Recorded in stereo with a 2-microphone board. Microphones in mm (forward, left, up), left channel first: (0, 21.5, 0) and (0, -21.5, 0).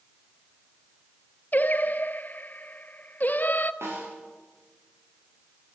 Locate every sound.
1.5 s singing: 45° left (ahead or behind), 0.6 m
3.8 s a snare drum: 85° right, 10 m